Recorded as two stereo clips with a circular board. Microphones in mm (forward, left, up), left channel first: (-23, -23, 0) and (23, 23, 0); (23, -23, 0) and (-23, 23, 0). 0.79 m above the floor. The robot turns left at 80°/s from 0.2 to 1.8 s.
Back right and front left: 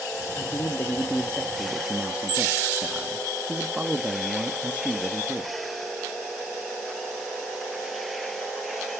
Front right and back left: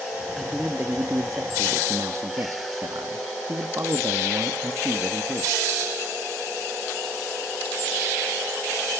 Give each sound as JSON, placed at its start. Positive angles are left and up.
{"t": 0.4, "sound": "a man speaking", "azimuth_deg": -135, "distance_m": 0.9}